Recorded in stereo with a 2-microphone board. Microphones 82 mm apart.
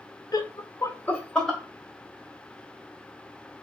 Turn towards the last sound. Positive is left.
turn(degrees=0)  # may be behind; listen again after turning